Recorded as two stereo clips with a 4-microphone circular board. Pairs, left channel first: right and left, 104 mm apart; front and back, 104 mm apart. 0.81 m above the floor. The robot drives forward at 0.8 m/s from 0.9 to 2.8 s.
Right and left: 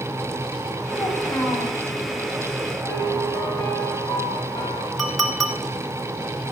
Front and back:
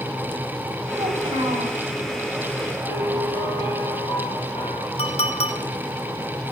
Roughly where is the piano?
Ahead right.